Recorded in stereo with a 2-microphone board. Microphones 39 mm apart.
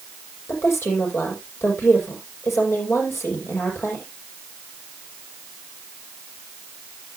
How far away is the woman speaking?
About 6.5 m.